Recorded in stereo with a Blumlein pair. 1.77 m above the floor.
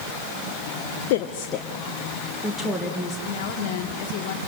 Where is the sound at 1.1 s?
50° left, 0.8 m; by 3.2 s straight ahead, 3 m.